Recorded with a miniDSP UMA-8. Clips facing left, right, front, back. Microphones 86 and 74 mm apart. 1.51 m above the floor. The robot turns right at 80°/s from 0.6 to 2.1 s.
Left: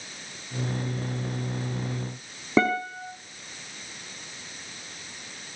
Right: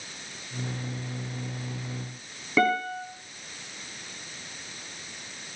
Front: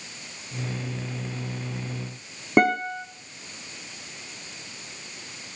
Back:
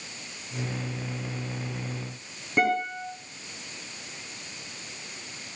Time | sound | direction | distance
2.6 | a guitar | 30° left | 5 m